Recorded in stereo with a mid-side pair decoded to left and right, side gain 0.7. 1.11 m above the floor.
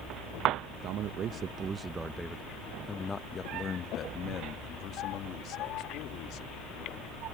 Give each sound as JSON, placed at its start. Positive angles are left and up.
{"t": 0.8, "sound": "a man speaking", "azimuth_deg": -55}